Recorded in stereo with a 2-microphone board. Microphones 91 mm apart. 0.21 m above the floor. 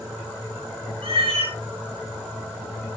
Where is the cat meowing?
90° right, 7.5 m.